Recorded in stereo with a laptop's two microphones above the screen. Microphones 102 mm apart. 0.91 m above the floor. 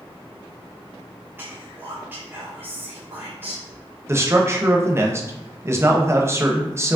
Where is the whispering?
20° right (ahead or behind), 1.2 m.